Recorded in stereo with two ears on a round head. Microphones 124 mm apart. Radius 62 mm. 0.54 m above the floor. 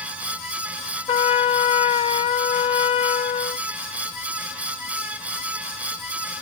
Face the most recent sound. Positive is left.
turn(degrees=40)  # may be behind; listen again after turning